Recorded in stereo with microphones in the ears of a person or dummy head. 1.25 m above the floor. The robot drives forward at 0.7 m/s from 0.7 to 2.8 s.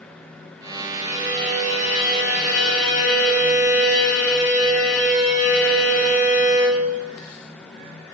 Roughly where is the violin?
Left.